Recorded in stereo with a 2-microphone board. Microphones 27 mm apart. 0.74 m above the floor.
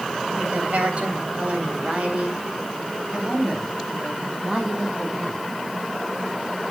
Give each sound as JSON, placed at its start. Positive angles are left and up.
{"t": 0.3, "sound": "a woman speaking", "side_deg": -55, "distance_m": 4.0}